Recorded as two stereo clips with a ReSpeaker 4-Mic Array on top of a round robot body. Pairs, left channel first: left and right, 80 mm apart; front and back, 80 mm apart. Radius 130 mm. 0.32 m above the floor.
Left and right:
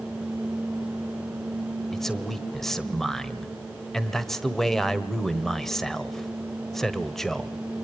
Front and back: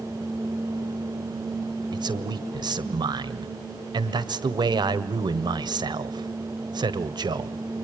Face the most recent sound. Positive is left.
turn(degrees=175)